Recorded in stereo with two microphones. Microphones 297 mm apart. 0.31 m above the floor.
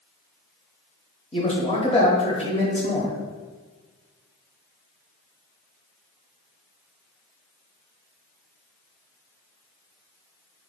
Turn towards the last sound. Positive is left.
turn(degrees=20)  # may be behind; listen again after turning